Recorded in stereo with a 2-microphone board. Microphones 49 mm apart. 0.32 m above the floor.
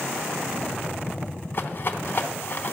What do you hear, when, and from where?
1.5 s a rattle: 45° left (ahead or behind), 0.9 m